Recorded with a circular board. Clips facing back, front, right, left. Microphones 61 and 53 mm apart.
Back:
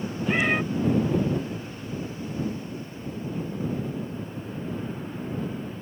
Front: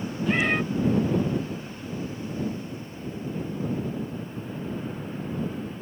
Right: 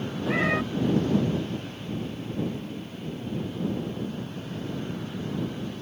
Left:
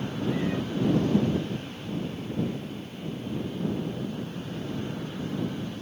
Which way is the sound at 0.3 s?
95° right.